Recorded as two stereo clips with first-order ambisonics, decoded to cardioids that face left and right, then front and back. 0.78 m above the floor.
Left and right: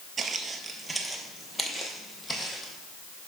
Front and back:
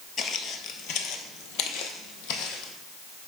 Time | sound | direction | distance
0.2 | footsteps | 35° right | 0.9 m